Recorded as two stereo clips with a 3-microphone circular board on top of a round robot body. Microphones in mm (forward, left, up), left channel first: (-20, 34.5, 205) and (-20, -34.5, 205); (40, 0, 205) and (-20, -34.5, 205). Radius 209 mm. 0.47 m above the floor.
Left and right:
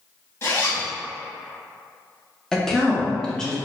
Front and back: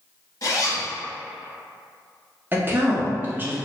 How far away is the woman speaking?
About 1.0 m.